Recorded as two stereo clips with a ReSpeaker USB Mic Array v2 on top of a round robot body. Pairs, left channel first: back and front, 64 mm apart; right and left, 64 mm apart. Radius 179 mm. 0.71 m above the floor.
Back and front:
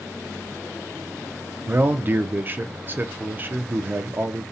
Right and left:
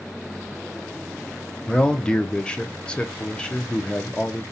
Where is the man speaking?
25° right, 0.5 m.